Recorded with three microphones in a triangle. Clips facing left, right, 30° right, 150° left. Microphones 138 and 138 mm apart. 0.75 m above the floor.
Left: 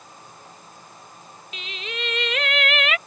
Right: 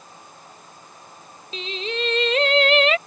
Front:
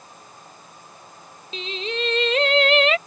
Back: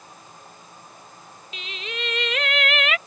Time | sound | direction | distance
1.5 | singing | 60° right | ?